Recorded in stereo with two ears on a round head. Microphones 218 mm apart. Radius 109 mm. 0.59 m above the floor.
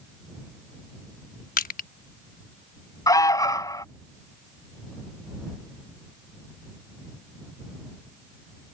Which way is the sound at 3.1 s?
15° left (ahead or behind).